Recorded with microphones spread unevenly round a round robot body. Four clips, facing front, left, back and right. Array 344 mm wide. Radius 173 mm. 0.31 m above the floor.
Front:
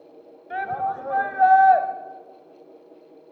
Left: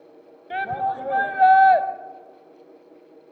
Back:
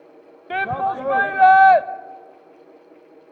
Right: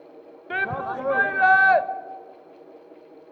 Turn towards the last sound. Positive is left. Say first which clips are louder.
# left 3 dB, back 4 dB
turn(degrees=-150)